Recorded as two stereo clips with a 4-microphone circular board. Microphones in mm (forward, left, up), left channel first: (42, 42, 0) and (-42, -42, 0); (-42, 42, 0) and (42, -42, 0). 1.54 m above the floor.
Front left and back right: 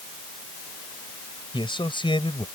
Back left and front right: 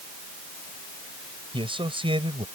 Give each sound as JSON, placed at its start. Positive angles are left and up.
{"t": 1.5, "sound": "a man speaking", "azimuth_deg": 0}